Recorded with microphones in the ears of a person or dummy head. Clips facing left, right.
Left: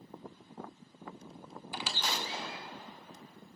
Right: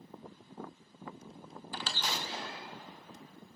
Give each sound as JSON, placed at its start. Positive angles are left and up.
{"t": 1.7, "sound": "a squeak", "side_deg": 10, "distance_m": 0.8}